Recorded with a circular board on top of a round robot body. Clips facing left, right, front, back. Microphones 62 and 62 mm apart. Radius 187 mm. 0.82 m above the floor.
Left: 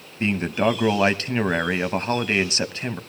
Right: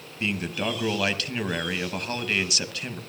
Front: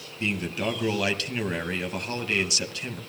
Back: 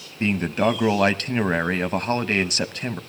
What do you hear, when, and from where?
0.2 s a man speaking: 140° left, 1.4 m